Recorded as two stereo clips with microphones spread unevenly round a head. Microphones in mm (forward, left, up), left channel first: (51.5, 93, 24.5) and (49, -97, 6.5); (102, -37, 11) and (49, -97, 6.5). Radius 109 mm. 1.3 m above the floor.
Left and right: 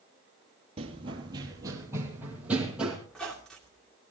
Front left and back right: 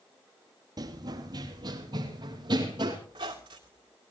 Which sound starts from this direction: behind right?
Running footsteps, at 0.8 s.